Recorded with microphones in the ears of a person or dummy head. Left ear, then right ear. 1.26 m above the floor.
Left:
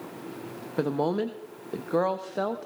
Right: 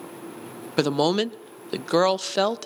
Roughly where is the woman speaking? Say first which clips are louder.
Right 5 dB; right.